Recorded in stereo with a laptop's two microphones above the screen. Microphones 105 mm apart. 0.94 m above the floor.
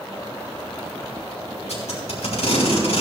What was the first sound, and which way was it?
Tape being pulled, 85° left.